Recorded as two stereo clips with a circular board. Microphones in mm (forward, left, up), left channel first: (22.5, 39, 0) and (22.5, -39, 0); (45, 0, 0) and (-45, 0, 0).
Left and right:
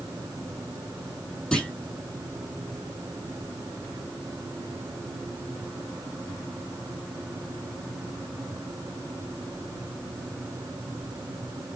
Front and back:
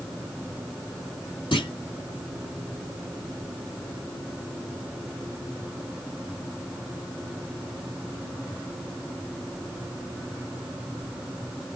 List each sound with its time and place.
1.5 s a clunk: 15° left, 3 m